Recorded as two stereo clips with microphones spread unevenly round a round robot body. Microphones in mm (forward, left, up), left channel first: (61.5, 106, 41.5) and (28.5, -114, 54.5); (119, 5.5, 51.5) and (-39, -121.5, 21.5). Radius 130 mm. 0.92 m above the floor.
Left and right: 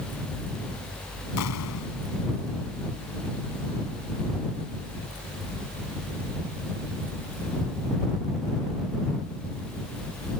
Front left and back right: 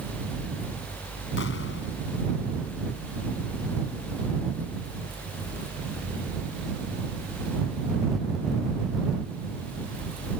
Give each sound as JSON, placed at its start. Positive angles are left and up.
{"t": 1.4, "sound": "an explosion", "azimuth_deg": 85}